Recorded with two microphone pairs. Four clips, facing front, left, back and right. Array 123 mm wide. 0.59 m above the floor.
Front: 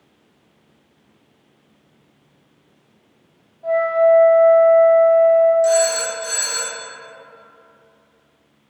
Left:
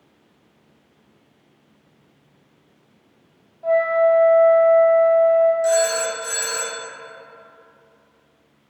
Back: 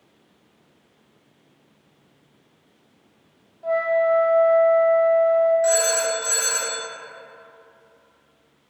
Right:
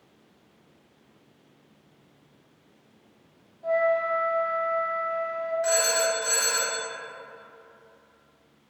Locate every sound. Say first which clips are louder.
3.6 s a flute: left 7 dB, front 5 dB; 120° left, 1.3 m
5.6 s a phone ringing: left 6 dB, front 4 dB; 130° right, 1.9 m